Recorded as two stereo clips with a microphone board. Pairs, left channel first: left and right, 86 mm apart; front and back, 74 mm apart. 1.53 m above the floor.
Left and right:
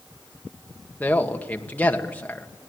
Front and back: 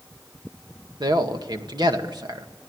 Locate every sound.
1.0 s a man speaking: 160° left, 2 m